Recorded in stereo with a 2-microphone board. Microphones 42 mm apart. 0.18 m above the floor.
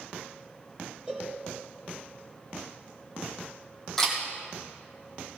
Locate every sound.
1.1 s a cowbell: 20° right (ahead or behind), 3.5 m
4.0 s a camera shutter: 5° left (ahead or behind), 3 m